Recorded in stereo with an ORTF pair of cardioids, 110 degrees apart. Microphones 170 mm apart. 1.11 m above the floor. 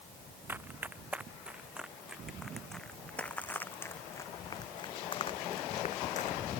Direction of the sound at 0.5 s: 10° right.